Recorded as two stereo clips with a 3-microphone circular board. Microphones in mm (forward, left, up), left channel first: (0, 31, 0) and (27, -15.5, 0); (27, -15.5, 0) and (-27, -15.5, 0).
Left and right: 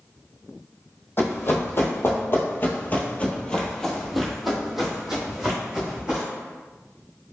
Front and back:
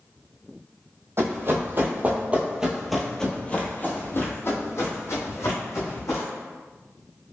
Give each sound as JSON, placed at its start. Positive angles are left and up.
{"t": 1.2, "sound": "running footsteps", "azimuth_deg": 160, "distance_m": 1.1}